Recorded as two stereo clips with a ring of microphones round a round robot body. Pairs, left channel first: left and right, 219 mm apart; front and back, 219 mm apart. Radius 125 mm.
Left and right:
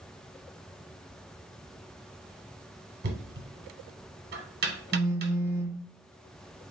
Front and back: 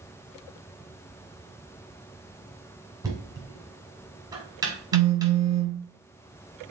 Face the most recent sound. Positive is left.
turn(degrees=-170)